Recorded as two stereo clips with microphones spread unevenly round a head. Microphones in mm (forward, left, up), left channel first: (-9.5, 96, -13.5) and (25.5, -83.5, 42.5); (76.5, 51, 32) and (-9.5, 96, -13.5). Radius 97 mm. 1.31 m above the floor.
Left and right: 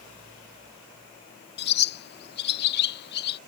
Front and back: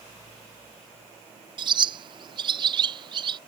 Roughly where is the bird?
Behind left.